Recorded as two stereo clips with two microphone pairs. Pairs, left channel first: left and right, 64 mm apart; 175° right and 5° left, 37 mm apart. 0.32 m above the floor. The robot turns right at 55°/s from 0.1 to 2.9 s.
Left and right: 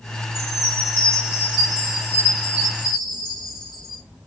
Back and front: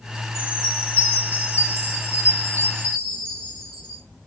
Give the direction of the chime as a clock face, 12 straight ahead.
2 o'clock.